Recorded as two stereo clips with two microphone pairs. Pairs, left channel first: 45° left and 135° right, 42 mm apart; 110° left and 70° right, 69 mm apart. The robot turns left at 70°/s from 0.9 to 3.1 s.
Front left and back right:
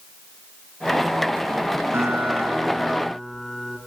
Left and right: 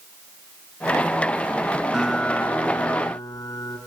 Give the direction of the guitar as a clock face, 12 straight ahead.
5 o'clock.